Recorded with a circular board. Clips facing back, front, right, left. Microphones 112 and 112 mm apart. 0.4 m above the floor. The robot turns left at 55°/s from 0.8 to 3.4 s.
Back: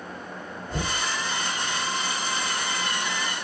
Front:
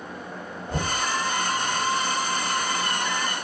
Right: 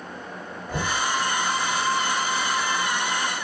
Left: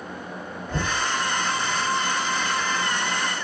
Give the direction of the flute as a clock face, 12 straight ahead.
No flute in this recording.